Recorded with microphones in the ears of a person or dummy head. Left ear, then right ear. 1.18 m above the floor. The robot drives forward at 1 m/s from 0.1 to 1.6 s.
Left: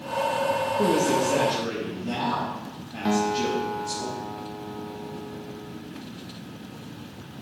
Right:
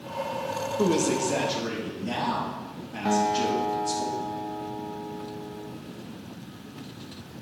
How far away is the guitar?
About 0.9 m.